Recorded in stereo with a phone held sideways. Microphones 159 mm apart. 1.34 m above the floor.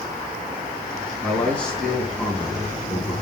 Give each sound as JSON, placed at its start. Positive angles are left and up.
{"t": 1.2, "sound": "a man speaking", "side_deg": 10, "distance_m": 2.5}